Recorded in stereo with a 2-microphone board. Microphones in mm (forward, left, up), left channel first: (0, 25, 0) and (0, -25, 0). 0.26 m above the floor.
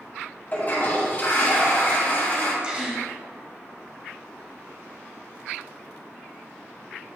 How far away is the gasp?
About 1.1 m.